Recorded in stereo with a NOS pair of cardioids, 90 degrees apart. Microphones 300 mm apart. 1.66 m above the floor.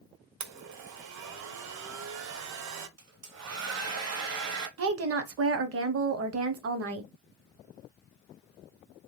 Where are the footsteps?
I don't hear footsteps.